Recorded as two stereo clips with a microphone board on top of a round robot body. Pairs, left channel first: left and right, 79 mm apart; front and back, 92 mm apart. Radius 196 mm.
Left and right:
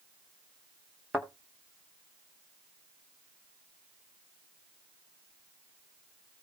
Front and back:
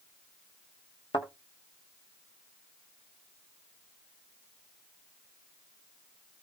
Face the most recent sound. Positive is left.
turn(degrees=-20)